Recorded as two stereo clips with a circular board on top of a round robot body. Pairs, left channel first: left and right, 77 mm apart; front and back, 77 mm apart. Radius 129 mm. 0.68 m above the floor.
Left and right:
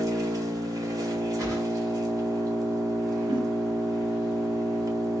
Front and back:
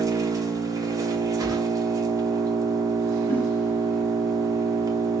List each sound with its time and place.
0.0 s an engine running: 135° right, 1.5 m
1.4 s a whoosh: 135° right, 2 m
3.3 s a giggle: 70° right, 1.3 m